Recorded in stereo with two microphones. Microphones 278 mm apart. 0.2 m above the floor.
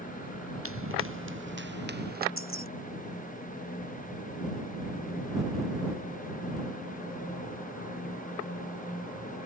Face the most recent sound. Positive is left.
turn(degrees=50)  # may be behind; listen again after turning